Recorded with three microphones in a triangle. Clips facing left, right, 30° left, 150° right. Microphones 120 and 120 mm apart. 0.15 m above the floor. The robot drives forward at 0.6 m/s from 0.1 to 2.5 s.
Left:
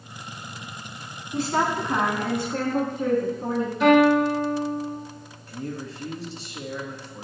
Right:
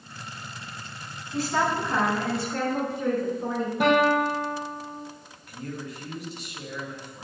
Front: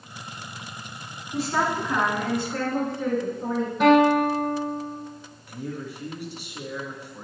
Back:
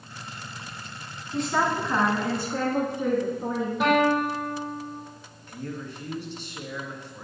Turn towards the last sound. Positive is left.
turn(degrees=95)